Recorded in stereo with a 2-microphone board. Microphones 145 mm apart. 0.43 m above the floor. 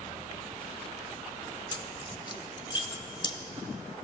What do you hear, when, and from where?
1.7 s keys jangling: 30° left (ahead or behind), 0.8 m